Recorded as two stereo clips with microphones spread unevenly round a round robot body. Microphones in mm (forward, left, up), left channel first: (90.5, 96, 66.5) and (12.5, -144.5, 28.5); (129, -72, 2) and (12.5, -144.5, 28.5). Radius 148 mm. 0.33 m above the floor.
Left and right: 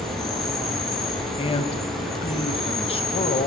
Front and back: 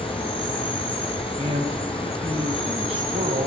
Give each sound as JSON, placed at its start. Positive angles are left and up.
{"t": 0.0, "sound": "an insect", "azimuth_deg": -20, "distance_m": 7.0}
{"t": 1.4, "sound": "a man speaking", "azimuth_deg": 145, "distance_m": 2.5}